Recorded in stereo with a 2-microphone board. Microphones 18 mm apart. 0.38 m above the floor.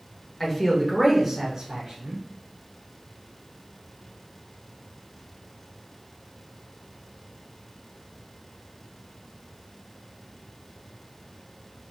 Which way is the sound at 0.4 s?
20° left (ahead or behind).